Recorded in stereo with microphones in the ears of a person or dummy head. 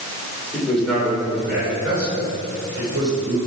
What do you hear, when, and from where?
0.5 s a man speaking: 10° left (ahead or behind), 3.5 m; by 3.4 s 35° right (ahead or behind), 5 m